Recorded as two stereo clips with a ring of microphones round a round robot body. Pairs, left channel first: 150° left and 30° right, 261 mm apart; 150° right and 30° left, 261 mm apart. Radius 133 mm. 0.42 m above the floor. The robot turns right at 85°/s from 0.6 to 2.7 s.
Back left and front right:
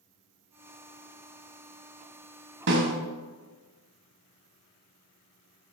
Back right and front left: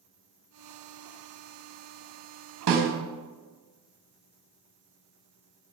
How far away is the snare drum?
About 1.1 m.